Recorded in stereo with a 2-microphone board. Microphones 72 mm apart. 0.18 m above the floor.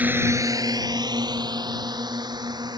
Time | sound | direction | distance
0.0 | a drone | 25° right (ahead or behind) | ?